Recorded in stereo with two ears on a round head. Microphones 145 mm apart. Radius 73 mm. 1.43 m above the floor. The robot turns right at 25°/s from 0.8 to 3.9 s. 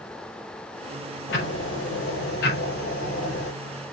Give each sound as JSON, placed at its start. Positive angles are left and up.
{"t": 1.3, "sound": "ticking", "azimuth_deg": 80, "distance_m": 5.0}